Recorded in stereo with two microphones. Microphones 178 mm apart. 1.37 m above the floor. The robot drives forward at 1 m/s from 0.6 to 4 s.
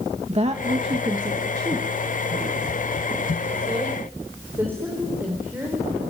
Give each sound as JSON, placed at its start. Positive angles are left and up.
{"t": 0.3, "sound": "a woman speaking", "side_deg": -40, "distance_m": 1.5}